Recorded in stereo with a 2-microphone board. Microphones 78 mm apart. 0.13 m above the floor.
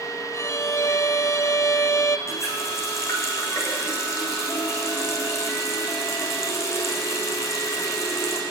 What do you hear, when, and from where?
0.3 s a violin: 40° left (ahead or behind), 0.7 m
2.3 s a running tap: 35° left (ahead or behind), 5.5 m